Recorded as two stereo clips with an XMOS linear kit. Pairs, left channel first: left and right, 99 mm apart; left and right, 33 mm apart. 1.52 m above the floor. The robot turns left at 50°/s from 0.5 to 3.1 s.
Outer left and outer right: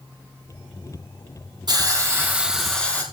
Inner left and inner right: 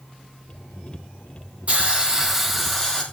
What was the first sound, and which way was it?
A hiss, 130° right.